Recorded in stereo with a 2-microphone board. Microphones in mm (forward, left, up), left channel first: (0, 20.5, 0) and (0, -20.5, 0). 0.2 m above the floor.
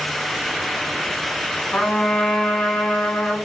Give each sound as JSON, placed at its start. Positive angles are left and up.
{"t": 1.7, "sound": "a trumpet", "side_deg": 40, "distance_m": 0.9}